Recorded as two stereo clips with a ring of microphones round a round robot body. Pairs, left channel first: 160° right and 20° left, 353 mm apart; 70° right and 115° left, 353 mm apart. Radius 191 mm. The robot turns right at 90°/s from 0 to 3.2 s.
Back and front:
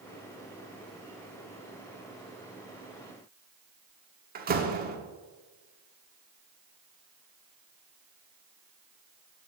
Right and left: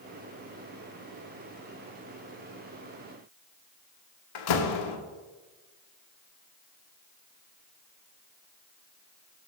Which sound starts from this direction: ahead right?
A door slam, at 4.3 s.